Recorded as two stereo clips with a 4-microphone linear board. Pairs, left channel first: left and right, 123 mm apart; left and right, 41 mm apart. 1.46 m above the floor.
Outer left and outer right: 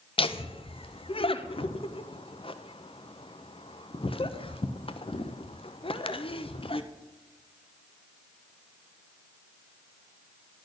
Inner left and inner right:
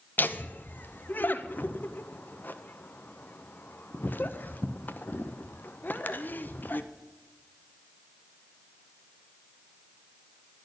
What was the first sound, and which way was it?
Laughter, 50° left (ahead or behind).